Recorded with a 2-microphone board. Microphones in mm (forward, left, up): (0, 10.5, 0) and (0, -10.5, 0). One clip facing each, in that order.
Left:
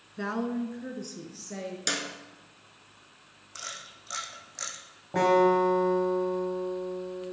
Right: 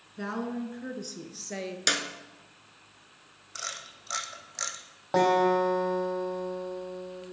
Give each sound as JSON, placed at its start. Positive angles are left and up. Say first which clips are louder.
{"t": 0.2, "sound": "a woman speaking", "louder": "left 2 dB", "side_deg": 15, "distance_m": 1.2}
{"t": 1.9, "sound": "a clap", "louder": "right 4 dB", "side_deg": -20, "distance_m": 1.2}
{"t": 3.5, "sound": "a camera shutter", "louder": "right 2 dB", "side_deg": -20, "distance_m": 1.7}
{"t": 5.1, "sound": "a guitar", "louder": "left 1 dB", "side_deg": -65, "distance_m": 4.5}